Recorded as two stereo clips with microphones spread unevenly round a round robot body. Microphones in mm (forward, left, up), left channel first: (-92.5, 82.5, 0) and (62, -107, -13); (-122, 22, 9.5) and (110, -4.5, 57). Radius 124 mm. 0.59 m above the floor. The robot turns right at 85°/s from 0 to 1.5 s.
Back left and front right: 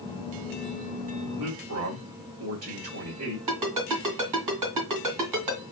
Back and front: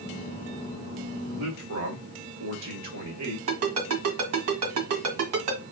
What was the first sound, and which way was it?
A man speaking, 35° right.